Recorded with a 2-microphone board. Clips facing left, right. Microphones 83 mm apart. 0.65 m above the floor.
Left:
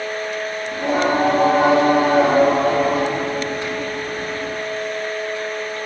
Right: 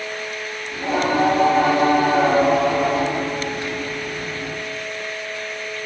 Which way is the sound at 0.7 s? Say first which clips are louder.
Left 1 dB; 90° left.